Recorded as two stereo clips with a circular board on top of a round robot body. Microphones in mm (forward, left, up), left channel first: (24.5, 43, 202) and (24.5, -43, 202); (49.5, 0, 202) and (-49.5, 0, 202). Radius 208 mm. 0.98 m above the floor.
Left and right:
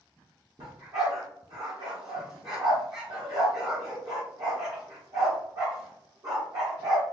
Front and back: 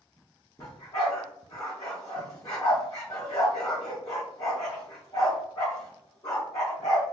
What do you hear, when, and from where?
0.6 s a dog barking: 55° right, 0.5 m